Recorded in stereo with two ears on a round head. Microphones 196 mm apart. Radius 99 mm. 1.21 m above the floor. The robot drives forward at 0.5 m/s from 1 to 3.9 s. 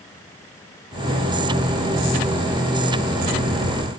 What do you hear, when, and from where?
Only background noise.